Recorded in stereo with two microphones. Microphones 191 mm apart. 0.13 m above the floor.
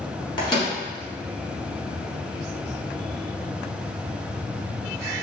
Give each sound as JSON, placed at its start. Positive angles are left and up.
{"t": 0.4, "sound": "a microwave", "side_deg": 25, "distance_m": 1.1}